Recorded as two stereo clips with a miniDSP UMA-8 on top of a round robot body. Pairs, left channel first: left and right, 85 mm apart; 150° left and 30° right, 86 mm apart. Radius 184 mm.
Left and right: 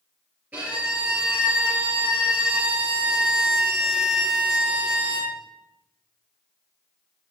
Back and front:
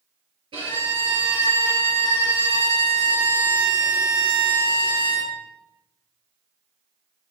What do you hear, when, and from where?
0.5 s a violin: 20° right, 3.5 m